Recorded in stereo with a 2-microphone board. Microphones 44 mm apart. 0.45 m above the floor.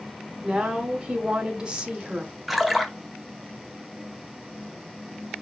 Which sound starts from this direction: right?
A woman speaking, at 0.4 s.